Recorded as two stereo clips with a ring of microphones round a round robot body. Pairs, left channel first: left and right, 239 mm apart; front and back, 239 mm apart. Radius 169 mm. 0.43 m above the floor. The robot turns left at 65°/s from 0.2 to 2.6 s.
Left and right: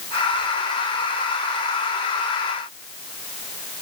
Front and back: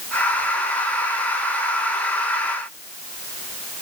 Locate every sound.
Only background noise.